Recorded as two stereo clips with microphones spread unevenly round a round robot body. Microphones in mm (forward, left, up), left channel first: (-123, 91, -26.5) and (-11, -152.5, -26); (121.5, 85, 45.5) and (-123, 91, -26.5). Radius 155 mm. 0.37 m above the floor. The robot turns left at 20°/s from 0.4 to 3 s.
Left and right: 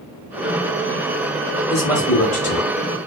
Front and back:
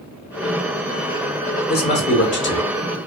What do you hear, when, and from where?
1.7 s a man speaking: 50° left, 1.0 m; by 2.7 s 30° left, 1.0 m